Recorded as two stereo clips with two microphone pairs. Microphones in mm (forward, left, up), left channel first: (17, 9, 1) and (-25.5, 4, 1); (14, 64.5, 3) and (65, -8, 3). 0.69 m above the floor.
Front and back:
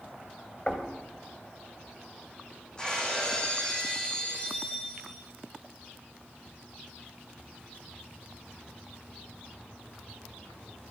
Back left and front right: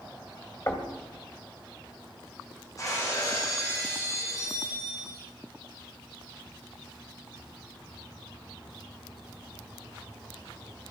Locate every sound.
0.7 s knocking: 70° left, 2.5 m
2.8 s breaking glass: 75° left, 8 m